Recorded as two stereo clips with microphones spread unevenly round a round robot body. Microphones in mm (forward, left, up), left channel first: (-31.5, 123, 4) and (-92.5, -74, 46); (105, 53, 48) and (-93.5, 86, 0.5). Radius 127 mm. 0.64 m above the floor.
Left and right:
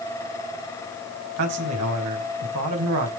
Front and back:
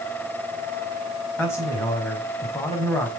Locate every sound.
1.4 s a man speaking: 95° right, 4.5 m